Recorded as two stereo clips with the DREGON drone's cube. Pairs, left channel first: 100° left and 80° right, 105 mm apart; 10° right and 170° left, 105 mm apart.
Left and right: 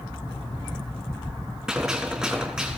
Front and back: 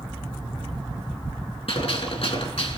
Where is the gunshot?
5° left, 3.5 m.